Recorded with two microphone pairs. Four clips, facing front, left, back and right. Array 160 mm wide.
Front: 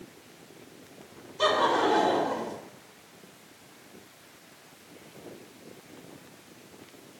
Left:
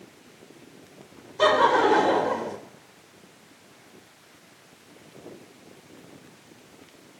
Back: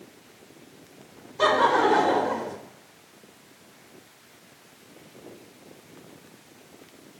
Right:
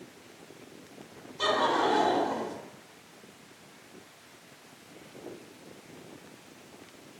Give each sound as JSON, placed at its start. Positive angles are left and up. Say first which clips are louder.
{"t": 1.4, "sound": "laughter", "louder": "left 7 dB, back 4 dB", "azimuth_deg": 140, "distance_m": 2.0}